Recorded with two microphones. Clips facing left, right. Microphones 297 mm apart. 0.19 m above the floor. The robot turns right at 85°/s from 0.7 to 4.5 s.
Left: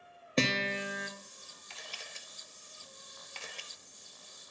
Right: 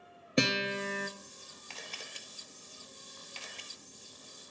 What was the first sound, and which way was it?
A guitar, 170° right.